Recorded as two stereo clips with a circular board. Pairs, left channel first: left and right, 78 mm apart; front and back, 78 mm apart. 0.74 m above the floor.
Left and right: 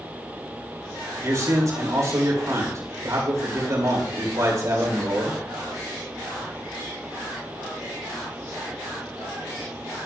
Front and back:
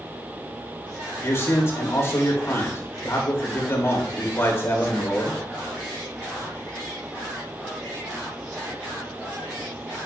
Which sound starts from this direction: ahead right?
A man speaking, at 1.2 s.